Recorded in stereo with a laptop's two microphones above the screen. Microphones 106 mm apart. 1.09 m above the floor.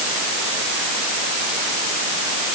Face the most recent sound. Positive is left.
No sound to turn to.